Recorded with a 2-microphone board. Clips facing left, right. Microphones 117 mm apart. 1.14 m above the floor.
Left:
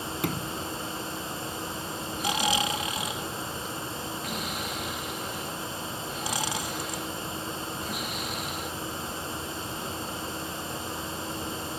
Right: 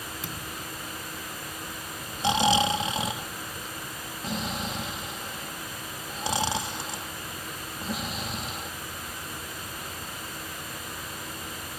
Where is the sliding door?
60° left (ahead or behind).